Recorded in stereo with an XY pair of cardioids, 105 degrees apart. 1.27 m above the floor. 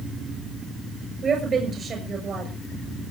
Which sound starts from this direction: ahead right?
A woman speaking, at 1.2 s.